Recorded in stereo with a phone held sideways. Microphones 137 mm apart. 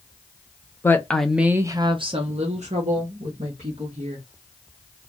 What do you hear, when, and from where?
0.8 s a woman speaking: 20° left (ahead or behind), 0.6 m; by 4.2 s 60° right (ahead or behind), 1.5 m